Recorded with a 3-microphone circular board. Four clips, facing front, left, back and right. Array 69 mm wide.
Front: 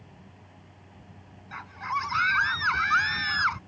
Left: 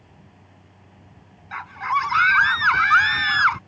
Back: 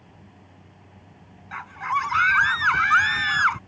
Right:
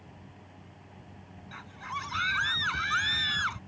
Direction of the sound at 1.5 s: 110° left.